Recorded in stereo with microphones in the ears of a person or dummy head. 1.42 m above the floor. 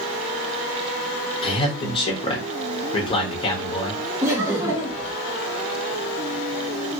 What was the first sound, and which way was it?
A man speaking, 30° left (ahead or behind).